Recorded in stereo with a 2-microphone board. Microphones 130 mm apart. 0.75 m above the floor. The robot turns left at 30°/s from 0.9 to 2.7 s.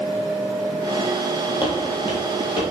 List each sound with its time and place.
1.6 s footsteps: 40° left (ahead or behind), 1.0 m